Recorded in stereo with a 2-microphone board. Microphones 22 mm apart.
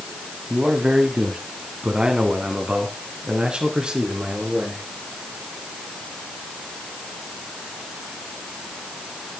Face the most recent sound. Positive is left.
turn(degrees=-45)  # may be behind; listen again after turning